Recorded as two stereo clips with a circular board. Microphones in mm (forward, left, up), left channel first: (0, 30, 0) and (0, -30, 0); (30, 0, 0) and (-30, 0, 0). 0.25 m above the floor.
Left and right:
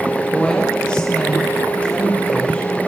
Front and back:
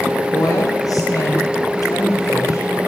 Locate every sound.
0.3 s a woman speaking: 10° left, 9 m; by 2.7 s 20° left, 11 m